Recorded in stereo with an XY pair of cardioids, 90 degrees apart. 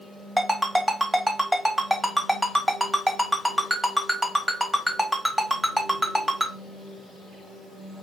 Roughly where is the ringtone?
Ahead.